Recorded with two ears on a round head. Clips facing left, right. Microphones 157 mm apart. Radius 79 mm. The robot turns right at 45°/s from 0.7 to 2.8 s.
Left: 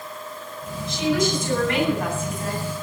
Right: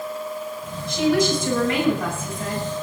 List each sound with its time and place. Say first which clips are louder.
0.9 s a woman speaking: right 3 dB; 130° right, 8.5 m; by 2.7 s 50° right, 8.5 m